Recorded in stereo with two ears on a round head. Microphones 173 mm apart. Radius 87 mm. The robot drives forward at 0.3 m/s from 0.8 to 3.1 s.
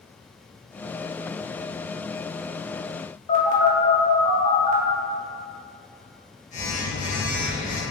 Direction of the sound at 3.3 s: 35° left (ahead or behind).